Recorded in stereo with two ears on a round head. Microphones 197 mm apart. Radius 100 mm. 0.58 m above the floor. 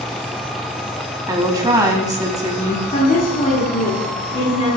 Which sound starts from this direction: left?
A woman speaking, at 2.9 s.